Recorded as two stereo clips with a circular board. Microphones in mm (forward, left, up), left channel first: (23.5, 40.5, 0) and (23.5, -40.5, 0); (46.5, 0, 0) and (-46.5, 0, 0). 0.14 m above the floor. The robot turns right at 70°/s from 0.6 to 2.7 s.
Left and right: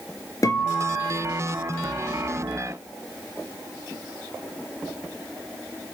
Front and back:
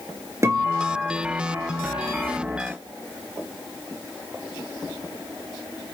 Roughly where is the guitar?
Behind left.